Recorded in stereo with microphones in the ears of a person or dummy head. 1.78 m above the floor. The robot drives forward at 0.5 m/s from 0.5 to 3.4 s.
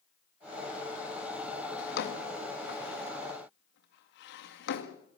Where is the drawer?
60° left (ahead or behind), 1.8 m; by 5.0 s 55° left (ahead or behind), 1.9 m.